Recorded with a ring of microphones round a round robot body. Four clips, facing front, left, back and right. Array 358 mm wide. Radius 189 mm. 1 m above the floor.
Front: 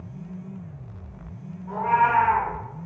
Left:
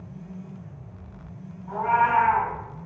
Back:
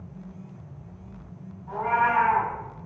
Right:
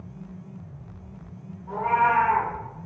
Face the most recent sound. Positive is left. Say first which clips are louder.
# even, front 3 dB
turn(degrees=-45)